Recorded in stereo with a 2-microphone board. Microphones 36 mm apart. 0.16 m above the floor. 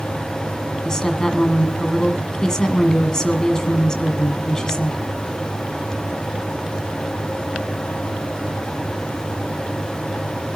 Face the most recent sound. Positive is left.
turn(degrees=20)  # may be behind; listen again after turning